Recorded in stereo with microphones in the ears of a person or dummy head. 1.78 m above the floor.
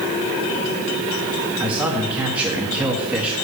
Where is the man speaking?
5° right (ahead or behind), 1.4 m.